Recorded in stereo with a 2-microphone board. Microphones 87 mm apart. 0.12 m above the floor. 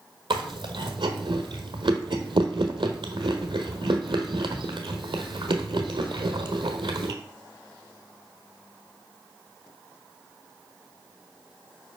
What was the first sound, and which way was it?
Chewing, 75° right (ahead or behind).